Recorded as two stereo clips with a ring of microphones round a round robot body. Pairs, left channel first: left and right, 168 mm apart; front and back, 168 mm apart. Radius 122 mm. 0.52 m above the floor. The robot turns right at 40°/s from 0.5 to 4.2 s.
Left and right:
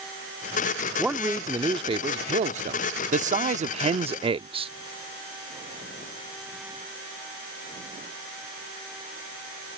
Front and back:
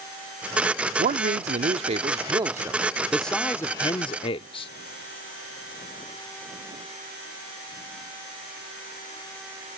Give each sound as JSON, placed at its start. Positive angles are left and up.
{"t": 1.0, "sound": "a man speaking", "azimuth_deg": -175}